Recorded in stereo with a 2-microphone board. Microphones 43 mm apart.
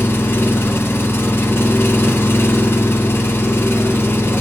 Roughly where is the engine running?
Left.